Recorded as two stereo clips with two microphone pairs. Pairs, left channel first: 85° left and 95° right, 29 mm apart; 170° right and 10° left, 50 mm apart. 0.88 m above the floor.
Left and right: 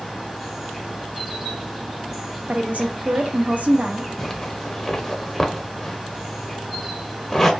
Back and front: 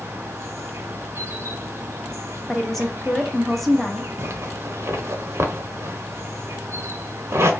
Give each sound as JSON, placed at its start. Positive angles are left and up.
{"t": 0.0, "sound": "an insect", "azimuth_deg": -15, "distance_m": 0.8}
{"t": 2.5, "sound": "a woman speaking", "azimuth_deg": -80, "distance_m": 0.7}
{"t": 4.2, "sound": "a zipper", "azimuth_deg": 5, "distance_m": 0.7}